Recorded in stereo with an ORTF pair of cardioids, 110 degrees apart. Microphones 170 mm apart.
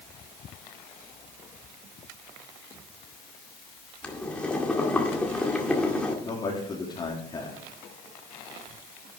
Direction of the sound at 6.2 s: 30° left.